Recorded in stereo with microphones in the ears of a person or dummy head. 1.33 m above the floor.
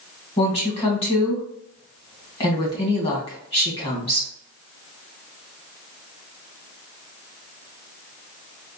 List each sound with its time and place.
0.4 s a woman speaking: 25° left (ahead or behind), 1.5 m